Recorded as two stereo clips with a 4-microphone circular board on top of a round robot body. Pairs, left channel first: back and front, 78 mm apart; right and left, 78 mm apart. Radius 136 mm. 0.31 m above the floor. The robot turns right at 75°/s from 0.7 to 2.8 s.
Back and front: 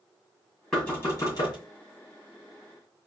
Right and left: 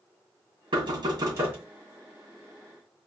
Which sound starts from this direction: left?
Knocking, at 0.7 s.